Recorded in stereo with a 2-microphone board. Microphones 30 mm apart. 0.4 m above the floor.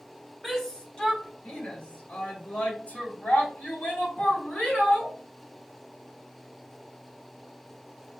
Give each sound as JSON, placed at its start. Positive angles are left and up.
{"t": 0.4, "sound": "a shout", "side_deg": 10, "distance_m": 1.1}